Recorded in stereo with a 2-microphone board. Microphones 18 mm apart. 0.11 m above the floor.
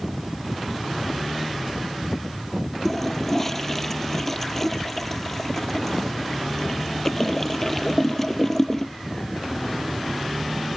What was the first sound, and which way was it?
A toilet flushing, 15° left (ahead or behind).